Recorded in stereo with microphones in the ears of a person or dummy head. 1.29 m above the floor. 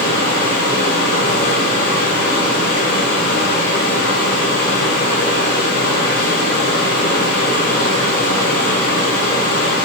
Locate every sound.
0.0 s a fan: 50° left (ahead or behind), 4 m